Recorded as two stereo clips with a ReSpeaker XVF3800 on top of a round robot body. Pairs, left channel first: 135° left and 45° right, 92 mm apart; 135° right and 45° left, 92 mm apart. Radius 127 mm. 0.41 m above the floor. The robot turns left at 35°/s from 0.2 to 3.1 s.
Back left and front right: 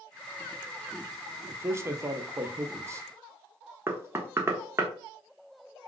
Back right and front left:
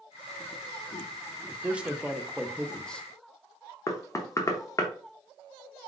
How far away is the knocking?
About 1.0 m.